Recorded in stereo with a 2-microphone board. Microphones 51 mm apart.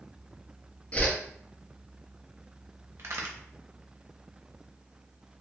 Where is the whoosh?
30° left (ahead or behind), 0.6 m.